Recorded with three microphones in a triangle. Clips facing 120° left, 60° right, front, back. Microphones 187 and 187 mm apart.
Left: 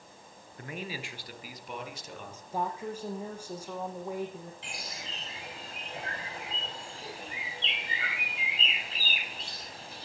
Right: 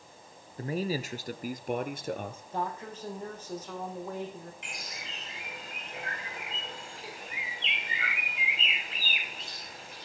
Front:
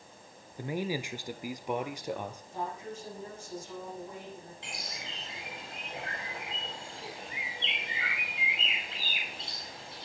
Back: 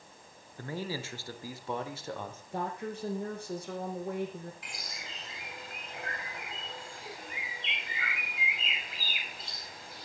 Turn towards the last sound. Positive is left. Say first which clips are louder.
# left 1 dB, front 3 dB
turn(degrees=65)